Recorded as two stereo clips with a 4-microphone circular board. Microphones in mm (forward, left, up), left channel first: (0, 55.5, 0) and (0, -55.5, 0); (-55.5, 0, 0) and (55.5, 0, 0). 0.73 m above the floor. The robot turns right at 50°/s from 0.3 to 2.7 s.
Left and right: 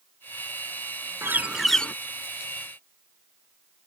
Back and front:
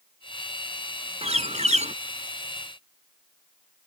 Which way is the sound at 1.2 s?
25° right.